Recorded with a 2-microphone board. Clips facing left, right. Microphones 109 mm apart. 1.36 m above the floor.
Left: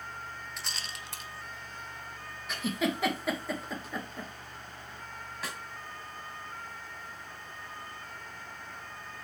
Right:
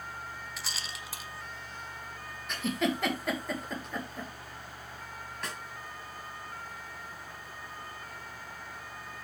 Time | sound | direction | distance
0.6 | a rattle | 5° right (ahead or behind) | 0.8 m
2.5 | a giggle | centre (ahead or behind) | 1.7 m
5.4 | a snare drum | 5° left (ahead or behind) | 2 m